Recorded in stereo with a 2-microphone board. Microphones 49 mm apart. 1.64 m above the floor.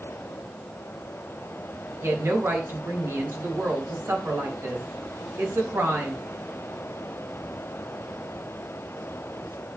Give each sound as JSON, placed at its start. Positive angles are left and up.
{"t": 2.0, "sound": "a woman speaking", "side_deg": -60, "distance_m": 3.0}